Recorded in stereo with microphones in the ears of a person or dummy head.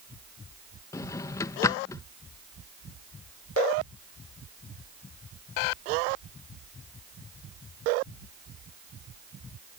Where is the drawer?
20° left (ahead or behind).